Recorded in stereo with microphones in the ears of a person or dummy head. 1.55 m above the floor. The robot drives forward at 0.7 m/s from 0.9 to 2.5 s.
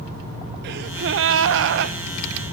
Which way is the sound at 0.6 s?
55° right (ahead or behind).